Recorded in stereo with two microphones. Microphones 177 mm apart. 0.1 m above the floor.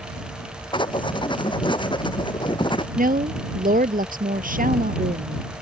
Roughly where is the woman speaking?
Right.